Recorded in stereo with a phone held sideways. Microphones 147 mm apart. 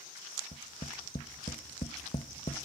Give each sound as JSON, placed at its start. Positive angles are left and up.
{"t": 0.5, "sound": "tapping", "side_deg": 50, "distance_m": 1.0}